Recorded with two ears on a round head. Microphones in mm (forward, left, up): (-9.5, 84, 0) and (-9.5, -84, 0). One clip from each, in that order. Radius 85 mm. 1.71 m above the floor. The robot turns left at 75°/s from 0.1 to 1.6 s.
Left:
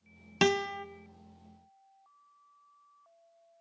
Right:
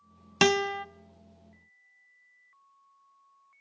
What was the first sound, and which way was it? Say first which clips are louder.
A guitar: right 4 dB; 20° right (ahead or behind).